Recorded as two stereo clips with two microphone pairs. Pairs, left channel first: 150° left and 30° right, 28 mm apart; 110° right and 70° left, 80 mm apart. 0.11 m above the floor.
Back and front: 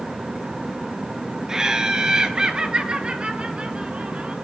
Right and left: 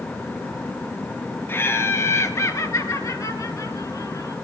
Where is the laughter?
80° right, 1.6 m; by 4.3 s 75° right, 2.5 m.